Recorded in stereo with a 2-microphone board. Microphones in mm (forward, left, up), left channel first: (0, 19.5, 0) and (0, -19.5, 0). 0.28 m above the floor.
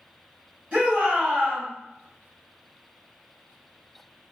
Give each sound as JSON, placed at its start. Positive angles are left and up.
{"t": 0.7, "sound": "a shout", "side_deg": -30, "distance_m": 1.5}